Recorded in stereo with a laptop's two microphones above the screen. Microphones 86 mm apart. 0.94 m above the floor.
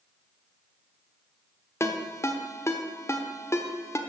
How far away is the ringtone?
About 1.0 m.